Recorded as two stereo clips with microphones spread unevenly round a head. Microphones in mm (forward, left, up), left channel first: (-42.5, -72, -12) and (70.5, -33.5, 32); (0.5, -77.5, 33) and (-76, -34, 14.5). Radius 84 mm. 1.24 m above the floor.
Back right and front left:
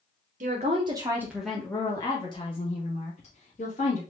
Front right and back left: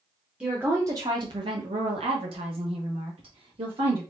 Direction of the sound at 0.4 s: 70° left.